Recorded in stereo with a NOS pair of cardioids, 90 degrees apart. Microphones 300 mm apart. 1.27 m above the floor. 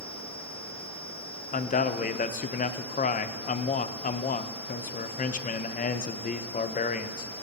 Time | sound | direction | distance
1.5 | a man speaking | 25° left | 0.6 m